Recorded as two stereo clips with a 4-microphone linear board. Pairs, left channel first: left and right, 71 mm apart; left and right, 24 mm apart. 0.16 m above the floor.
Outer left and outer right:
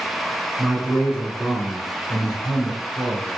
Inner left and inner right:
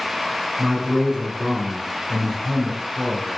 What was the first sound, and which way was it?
A man speaking, 5° right (ahead or behind).